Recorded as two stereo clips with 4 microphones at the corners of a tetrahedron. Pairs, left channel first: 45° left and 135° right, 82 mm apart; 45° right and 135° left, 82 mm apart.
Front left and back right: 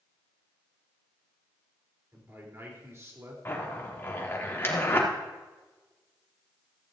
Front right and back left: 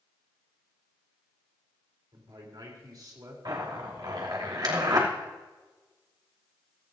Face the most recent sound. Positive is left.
turn(degrees=105)